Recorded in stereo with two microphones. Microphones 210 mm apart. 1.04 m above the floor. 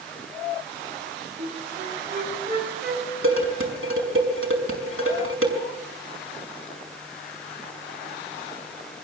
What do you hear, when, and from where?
1.4 s a flute: 50° right (ahead or behind), 4.5 m
3.2 s dishes clattering: 80° right, 5.5 m